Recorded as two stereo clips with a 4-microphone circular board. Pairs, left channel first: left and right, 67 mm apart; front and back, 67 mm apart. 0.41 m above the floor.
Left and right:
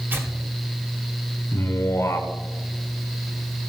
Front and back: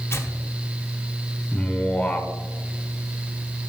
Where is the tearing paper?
40° right, 1.7 m.